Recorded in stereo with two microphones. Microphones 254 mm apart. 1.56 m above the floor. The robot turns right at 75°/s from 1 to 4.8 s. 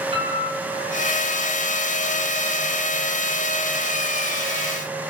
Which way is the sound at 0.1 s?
20° right (ahead or behind).